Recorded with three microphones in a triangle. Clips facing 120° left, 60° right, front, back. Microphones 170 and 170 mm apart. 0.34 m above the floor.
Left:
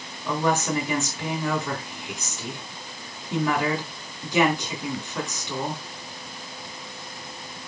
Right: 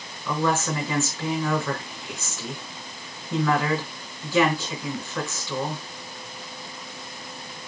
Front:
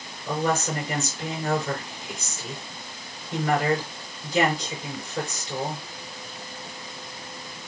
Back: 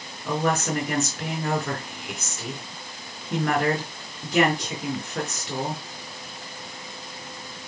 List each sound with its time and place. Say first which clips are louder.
0.2 s a woman speaking: left 1 dB, back 1 dB; 170° right, 4 m